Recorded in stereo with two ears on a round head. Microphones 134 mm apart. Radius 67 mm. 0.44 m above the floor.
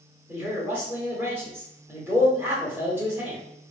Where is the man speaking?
15° right (ahead or behind), 1.2 m.